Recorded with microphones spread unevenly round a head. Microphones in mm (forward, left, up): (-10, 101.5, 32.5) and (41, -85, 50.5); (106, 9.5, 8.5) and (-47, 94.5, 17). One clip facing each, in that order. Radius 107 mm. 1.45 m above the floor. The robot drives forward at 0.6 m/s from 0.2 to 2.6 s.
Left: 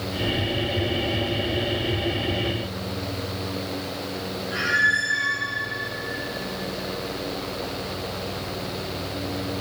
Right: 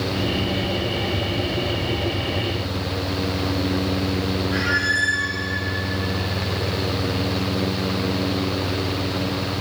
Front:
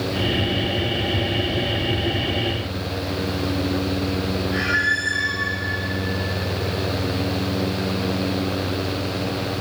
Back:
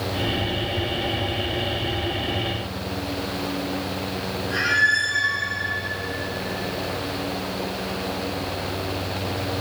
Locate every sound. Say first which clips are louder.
4.5 s a squeak: right 6 dB, front 3 dB; 170° right, 6 m